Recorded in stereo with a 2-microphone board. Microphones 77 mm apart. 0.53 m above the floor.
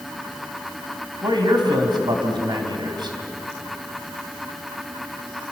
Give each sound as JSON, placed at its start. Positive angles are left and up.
{"t": 1.2, "sound": "a man speaking", "side_deg": -60, "distance_m": 3.5}